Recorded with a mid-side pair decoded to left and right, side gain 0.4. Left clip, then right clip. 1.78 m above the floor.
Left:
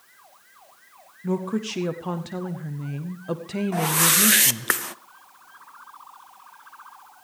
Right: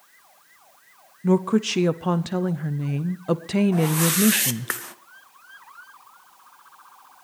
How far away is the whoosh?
About 0.8 m.